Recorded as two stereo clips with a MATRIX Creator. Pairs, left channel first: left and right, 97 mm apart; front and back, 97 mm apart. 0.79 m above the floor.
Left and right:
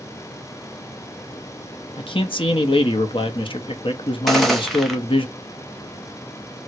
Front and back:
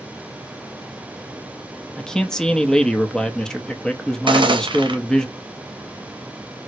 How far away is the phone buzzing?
No phone buzzing in this recording.